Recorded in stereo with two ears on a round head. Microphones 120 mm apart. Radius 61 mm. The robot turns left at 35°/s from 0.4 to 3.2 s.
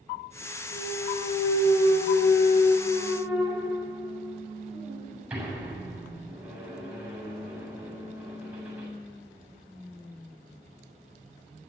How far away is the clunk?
About 7.5 m.